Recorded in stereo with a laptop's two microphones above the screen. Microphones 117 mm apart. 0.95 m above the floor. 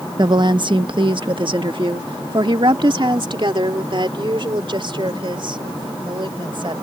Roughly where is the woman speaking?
Right.